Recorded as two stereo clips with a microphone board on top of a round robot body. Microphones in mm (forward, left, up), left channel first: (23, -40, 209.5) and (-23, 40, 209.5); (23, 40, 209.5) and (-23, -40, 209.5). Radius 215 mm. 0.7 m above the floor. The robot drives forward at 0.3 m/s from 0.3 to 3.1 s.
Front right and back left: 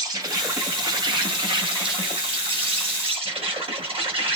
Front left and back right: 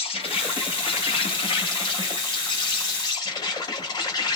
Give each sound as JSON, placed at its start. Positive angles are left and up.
{"t": 0.0, "sound": "an insect", "azimuth_deg": 70, "distance_m": 1.3}